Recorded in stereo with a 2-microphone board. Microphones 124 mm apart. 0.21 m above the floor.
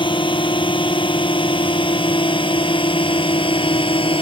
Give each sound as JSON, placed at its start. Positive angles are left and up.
{"t": 0.0, "sound": "a drone", "side_deg": 40}